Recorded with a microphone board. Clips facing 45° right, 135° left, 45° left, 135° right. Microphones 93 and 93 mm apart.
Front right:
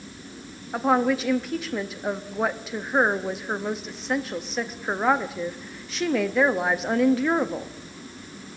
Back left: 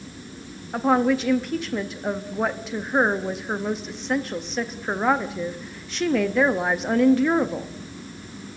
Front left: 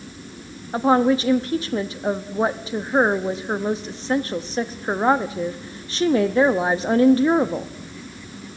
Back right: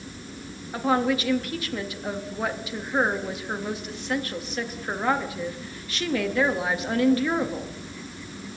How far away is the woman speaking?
About 0.6 m.